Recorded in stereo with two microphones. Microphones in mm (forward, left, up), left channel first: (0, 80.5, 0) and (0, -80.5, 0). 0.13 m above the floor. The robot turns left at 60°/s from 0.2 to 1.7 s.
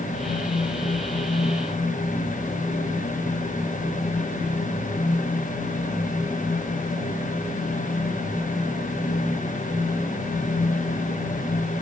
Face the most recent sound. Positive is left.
No sound to turn to.